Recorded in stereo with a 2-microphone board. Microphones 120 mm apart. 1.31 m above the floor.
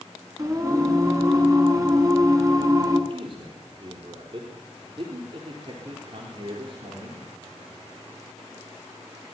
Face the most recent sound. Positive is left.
turn(degrees=-50)  # may be behind; listen again after turning